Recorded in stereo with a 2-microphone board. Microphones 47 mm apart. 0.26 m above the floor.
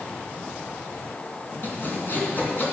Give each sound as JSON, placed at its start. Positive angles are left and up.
{"t": 1.6, "sound": "sawing", "side_deg": 45, "distance_m": 3.0}